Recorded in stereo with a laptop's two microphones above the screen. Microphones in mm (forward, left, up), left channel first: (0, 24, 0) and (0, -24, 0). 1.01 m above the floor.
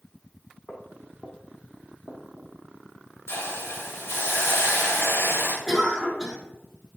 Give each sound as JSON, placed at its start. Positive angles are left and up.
{"t": 0.7, "sound": "footsteps", "side_deg": 35, "distance_m": 2.5}
{"t": 3.3, "sound": "a hiss", "side_deg": 65, "distance_m": 1.5}
{"t": 5.7, "sound": "a cough", "side_deg": 10, "distance_m": 1.9}